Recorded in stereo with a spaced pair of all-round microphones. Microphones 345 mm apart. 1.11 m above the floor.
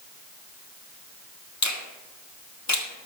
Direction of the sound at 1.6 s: 55° left (ahead or behind).